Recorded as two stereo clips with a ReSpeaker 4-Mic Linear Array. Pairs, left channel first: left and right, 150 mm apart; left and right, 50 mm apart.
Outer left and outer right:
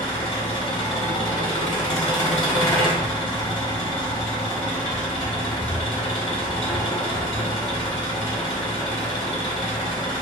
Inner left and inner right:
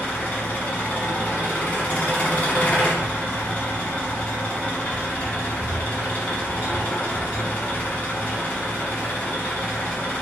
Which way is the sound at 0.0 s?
30° left (ahead or behind).